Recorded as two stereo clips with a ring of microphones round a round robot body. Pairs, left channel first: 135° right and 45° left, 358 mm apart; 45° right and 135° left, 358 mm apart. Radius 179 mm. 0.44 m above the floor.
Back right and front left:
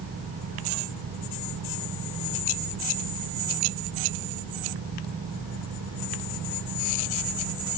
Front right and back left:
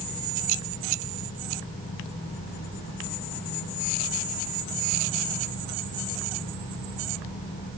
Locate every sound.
Only background noise.